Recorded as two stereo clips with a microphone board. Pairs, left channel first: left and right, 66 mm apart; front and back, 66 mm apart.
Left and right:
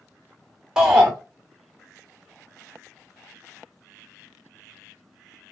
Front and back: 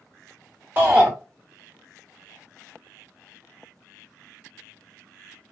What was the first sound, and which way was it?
A shout, 155° right.